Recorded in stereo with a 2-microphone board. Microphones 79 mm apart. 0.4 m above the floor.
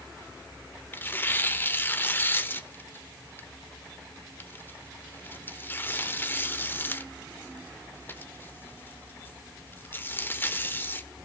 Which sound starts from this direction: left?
Tearing paper, at 0.9 s.